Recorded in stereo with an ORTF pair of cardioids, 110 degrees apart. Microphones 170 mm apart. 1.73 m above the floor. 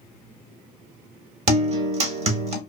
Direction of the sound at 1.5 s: 40° right.